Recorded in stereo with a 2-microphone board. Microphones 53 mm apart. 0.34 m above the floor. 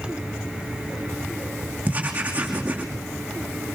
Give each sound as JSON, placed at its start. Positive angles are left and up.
{"t": 1.9, "sound": "writing", "side_deg": -25, "distance_m": 5.5}